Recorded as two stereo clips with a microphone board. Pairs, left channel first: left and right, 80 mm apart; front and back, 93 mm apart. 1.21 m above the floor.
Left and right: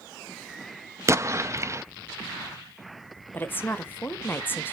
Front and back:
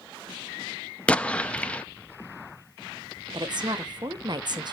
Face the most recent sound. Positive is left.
turn(degrees=150)